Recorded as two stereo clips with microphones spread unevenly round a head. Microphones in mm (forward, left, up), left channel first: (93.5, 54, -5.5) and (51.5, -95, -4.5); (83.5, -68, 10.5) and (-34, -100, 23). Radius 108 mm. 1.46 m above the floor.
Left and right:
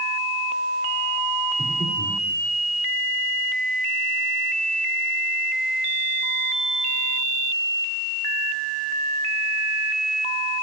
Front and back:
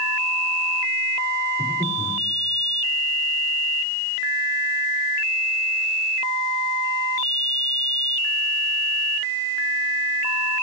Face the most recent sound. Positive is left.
turn(degrees=115)